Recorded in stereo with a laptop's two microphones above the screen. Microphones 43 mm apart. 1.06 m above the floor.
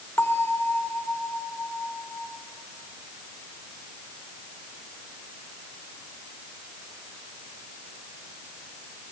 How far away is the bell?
About 3 m.